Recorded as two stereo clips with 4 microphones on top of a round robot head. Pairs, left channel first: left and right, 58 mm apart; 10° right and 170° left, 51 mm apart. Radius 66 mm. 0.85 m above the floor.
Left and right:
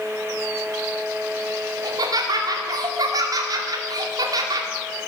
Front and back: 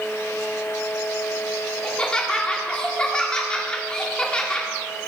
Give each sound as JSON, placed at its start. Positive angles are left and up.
{"t": 1.8, "sound": "laughter", "azimuth_deg": -85, "distance_m": 2.5}